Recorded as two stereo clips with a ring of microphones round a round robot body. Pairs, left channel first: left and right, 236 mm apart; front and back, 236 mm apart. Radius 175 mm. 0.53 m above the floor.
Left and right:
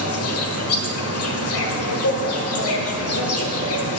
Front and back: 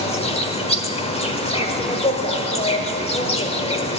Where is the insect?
65° left, 1.3 m.